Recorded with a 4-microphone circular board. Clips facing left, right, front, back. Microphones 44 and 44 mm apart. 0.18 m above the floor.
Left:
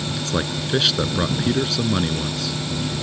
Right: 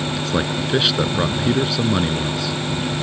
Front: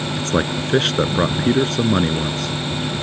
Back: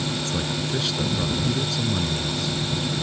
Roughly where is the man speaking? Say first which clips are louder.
Right 2 dB, front 6 dB; ahead.